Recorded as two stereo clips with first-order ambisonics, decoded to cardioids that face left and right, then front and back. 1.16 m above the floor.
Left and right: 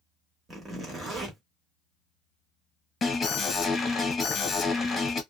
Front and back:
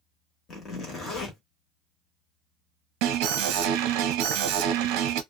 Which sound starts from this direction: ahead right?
A zipper, at 0.5 s.